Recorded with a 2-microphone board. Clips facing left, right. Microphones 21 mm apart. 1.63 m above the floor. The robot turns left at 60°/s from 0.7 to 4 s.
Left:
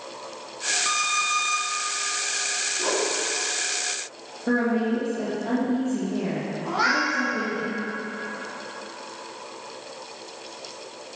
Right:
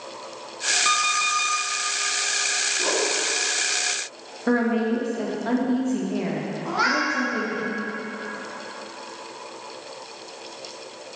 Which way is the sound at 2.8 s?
Centre (ahead or behind).